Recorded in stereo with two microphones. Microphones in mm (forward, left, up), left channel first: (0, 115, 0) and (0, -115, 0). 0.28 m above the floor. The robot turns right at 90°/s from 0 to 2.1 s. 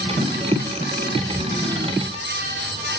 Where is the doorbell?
No doorbell in this recording.